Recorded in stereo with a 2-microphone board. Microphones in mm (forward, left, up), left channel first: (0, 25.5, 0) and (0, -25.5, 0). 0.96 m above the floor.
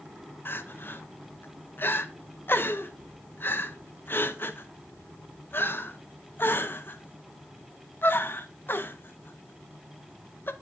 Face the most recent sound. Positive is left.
turn(degrees=45)  # may be behind; listen again after turning